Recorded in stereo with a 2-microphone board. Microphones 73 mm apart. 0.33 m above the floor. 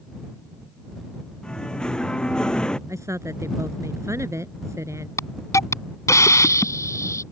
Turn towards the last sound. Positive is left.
turn(degrees=45)  # may be behind; listen again after turning